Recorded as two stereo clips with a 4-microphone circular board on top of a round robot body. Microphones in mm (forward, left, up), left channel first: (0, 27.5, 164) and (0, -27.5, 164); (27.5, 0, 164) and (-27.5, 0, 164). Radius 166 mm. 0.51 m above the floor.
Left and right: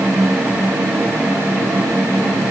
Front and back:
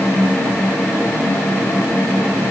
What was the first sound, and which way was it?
Only background noise.